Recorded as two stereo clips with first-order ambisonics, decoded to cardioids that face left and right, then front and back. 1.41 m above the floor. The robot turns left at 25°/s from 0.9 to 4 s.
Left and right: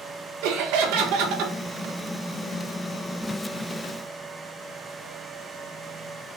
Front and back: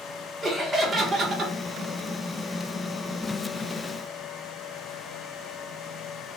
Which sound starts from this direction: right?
Laughter, at 0.4 s.